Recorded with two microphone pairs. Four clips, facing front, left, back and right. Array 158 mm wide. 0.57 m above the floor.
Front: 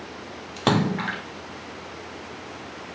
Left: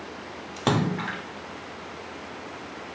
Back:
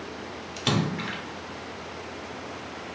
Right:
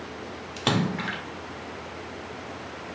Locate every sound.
0.6 s a splash: 15° left, 0.8 m